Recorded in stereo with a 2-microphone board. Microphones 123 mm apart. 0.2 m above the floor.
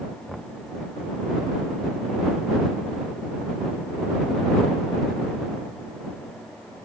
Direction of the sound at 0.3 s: Centre (ahead or behind).